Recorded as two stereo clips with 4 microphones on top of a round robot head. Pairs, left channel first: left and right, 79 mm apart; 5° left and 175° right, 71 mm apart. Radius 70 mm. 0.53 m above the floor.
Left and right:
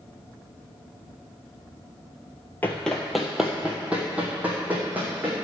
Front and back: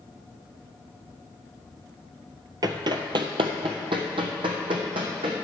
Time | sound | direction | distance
2.6 | running footsteps | 165° left | 0.7 m